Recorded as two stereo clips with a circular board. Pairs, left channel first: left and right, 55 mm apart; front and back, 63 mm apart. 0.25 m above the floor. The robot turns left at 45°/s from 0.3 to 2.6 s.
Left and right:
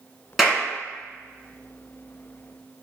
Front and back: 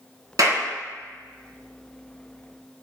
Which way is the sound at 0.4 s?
175° right.